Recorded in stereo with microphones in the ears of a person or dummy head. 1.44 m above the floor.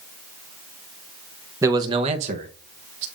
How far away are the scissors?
I don't hear scissors.